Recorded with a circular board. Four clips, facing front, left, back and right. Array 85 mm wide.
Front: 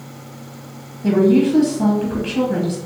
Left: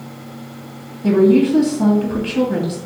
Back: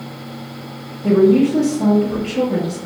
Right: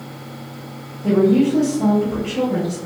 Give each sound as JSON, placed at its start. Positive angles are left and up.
{"t": 1.0, "sound": "a woman speaking", "azimuth_deg": 55, "distance_m": 1.4}